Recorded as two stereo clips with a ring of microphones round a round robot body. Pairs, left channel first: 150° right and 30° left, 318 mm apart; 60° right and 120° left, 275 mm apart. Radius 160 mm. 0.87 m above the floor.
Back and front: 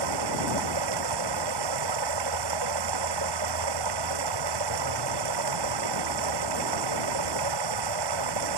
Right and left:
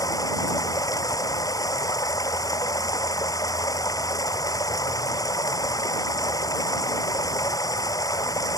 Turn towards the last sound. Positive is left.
turn(degrees=20)